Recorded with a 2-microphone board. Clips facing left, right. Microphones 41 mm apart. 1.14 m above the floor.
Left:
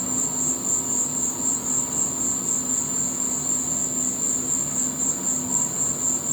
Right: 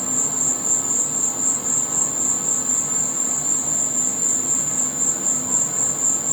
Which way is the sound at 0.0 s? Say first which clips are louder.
Right 1 dB; 55° right (ahead or behind).